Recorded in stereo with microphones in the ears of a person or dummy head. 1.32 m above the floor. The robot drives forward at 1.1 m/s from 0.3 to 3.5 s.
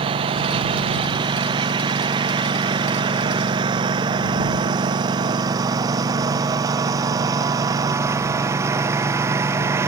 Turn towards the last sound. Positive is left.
turn(degrees=-15)  # may be behind; listen again after turning